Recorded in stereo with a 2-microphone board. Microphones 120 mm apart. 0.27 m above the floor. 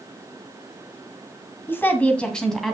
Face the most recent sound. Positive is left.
turn(degrees=0)  # may be behind; listen again after turning